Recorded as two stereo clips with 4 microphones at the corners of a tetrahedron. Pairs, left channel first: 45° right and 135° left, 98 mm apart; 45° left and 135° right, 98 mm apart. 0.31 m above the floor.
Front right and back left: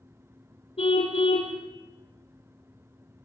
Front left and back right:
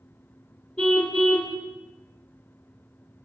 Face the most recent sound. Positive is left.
turn(degrees=-30)